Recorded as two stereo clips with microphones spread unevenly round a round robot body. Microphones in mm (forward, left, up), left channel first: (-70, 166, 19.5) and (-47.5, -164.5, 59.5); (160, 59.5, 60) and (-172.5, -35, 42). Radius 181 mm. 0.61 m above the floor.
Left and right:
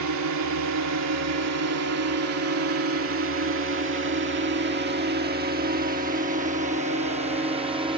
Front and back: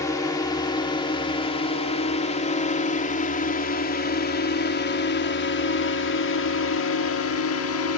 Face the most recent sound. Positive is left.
turn(degrees=-10)